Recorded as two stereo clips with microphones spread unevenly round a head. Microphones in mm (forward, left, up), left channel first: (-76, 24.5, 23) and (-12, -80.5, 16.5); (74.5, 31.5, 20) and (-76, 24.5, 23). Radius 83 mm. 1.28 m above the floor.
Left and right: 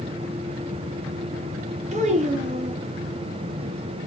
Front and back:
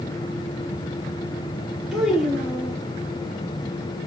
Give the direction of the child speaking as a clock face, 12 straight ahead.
3 o'clock.